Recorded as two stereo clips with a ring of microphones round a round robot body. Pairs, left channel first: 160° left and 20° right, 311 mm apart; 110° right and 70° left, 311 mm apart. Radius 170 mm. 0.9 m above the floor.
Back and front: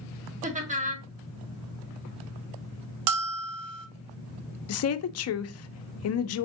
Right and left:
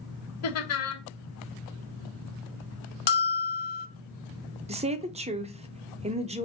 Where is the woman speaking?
135° left, 0.6 m.